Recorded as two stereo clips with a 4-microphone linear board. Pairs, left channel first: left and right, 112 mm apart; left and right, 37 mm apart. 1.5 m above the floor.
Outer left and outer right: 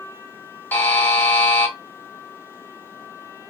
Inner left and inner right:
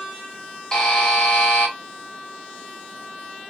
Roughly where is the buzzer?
Centre.